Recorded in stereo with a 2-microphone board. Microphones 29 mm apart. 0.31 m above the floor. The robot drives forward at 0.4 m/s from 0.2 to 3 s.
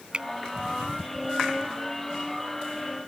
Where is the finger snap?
35° right (ahead or behind).